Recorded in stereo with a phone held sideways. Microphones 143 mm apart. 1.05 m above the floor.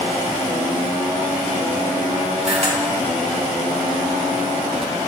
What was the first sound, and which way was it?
A camera shutter, 50° right (ahead or behind).